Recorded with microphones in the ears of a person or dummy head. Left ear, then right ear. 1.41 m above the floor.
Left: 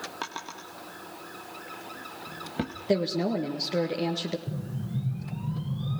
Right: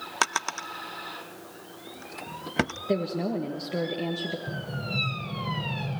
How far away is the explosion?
About 4 m.